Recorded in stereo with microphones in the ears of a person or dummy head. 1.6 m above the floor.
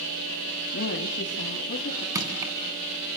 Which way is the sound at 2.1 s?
20° right (ahead or behind).